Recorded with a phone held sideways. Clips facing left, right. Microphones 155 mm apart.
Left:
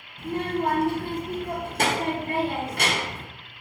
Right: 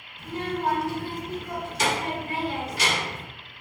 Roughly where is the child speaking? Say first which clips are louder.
Left 3 dB; left.